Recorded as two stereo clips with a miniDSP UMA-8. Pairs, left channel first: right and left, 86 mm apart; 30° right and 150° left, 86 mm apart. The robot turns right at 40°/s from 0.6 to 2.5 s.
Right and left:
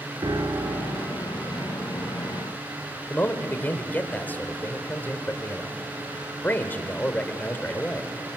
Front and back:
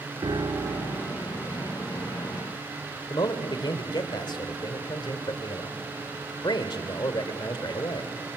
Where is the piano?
120° left, 2.5 m; by 1.3 s 150° left, 2.5 m.